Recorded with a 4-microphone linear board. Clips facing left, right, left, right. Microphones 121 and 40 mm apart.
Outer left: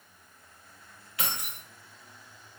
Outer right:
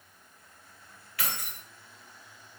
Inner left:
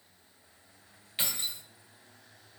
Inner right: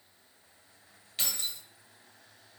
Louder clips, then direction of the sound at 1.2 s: Outer left 1 dB, inner left 1 dB; 25° left (ahead or behind).